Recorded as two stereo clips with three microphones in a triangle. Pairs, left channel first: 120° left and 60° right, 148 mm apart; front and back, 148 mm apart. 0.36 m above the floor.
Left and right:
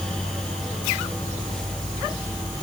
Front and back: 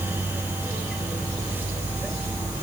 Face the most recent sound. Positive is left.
No sound to turn to.